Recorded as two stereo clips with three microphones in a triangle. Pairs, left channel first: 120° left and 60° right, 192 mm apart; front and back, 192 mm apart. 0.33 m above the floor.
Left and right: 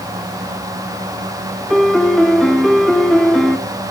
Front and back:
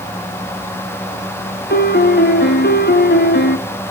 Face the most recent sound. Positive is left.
turn(degrees=30)